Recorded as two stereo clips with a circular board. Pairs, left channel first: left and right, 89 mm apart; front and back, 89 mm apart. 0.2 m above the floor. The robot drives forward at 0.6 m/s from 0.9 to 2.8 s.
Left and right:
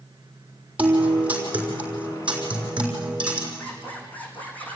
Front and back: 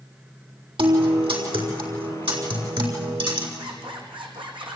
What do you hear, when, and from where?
0.8 s a guitar: 160° right, 5 m; by 3.5 s 165° right, 6.5 m
3.6 s a zipper: 160° left, 4 m